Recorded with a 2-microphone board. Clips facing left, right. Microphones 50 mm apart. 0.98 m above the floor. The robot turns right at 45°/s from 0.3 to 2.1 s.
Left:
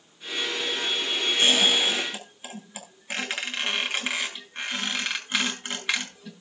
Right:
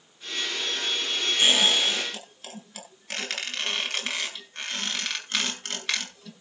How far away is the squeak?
About 10 m.